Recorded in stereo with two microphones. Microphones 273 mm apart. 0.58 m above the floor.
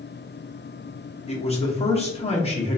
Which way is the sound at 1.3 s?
20° left (ahead or behind).